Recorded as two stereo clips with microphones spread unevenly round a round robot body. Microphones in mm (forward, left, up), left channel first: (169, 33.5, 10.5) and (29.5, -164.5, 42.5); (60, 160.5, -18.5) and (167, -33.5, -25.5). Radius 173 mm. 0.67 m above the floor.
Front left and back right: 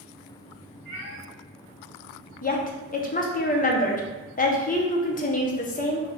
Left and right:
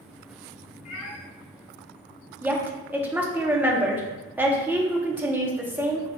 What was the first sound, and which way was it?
A cat meowing, 110° left.